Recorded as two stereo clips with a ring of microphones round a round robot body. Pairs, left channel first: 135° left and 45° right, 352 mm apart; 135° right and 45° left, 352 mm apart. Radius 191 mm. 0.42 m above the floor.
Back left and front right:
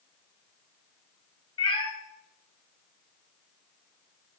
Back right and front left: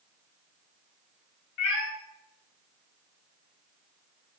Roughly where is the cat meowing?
Behind right.